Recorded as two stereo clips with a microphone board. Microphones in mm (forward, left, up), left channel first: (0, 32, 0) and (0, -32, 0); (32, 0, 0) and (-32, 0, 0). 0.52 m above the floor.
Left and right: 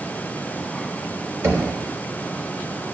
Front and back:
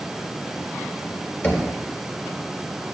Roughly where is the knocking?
Ahead right.